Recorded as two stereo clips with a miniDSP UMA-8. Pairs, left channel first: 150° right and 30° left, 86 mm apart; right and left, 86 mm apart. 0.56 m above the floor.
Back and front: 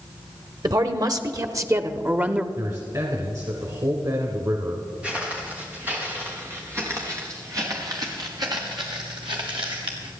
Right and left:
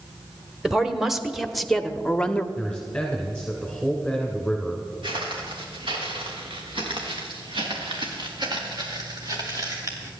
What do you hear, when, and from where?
0.6 s a woman speaking: 5° left, 1.5 m; by 2.5 s 30° right, 0.7 m
2.6 s a man speaking: 5° right, 2.0 m
5.0 s footsteps: 105° left, 4.5 m; by 10.1 s 35° left, 3.5 m